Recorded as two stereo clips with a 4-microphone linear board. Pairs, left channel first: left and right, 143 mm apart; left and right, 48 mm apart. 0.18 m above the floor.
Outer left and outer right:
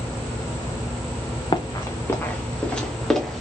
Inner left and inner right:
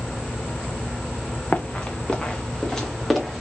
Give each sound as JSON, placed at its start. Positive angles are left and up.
{"t": 1.5, "sound": "running footsteps", "side_deg": 35, "distance_m": 0.8}